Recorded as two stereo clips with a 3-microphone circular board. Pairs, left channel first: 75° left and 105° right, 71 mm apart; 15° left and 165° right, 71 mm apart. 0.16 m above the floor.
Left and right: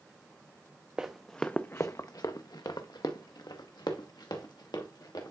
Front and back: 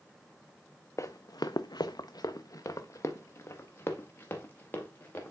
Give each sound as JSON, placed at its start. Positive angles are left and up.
{"t": 1.0, "sound": "running footsteps", "azimuth_deg": -30, "distance_m": 0.5}